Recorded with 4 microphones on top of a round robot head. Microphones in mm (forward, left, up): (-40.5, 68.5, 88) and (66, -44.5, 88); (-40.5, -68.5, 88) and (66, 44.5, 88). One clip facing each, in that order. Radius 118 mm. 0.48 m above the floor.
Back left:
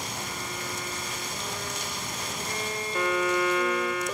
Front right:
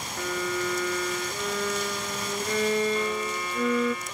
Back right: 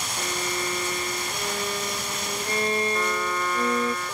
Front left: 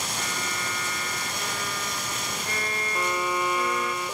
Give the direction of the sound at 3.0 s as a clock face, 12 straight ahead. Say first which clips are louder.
Back left 3 dB, even; 8 o'clock.